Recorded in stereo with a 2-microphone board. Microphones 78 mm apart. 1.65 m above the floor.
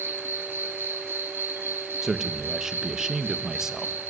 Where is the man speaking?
5° right (ahead or behind), 1.8 m.